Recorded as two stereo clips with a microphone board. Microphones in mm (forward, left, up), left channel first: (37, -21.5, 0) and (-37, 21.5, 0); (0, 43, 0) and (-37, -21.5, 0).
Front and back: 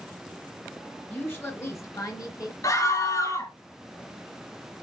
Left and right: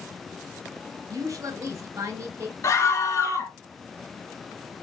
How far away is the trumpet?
I don't hear a trumpet.